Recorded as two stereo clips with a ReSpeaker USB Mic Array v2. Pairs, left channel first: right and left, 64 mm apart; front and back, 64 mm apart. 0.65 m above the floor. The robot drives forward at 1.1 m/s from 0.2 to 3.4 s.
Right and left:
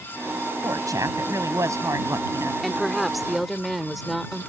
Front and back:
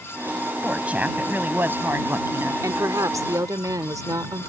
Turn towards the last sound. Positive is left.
turn(degrees=180)